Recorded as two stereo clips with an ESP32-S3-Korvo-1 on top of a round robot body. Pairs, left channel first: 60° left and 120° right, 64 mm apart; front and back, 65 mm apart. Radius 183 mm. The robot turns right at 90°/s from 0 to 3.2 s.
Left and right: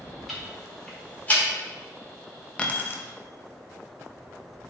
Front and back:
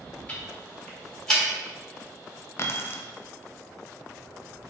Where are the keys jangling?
Straight ahead, 0.7 m; by 3.0 s 40° left, 0.7 m.